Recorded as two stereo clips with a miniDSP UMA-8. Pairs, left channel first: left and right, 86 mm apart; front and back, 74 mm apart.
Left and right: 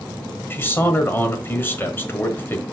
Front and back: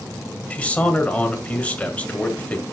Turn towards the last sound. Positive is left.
turn(degrees=55)